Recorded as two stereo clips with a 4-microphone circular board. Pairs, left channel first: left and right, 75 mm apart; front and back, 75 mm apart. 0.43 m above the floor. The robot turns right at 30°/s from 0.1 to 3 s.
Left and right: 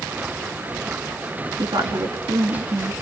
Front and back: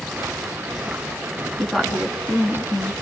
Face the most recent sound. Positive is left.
turn(degrees=-50)